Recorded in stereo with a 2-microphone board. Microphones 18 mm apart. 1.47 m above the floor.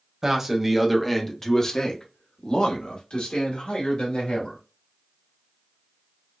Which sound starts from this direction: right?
A man speaking, at 0.2 s.